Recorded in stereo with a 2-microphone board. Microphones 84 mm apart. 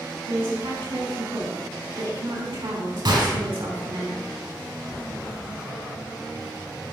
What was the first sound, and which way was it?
A woman speaking, 75° right (ahead or behind).